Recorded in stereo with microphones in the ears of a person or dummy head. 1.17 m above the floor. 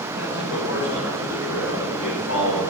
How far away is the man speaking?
About 6 m.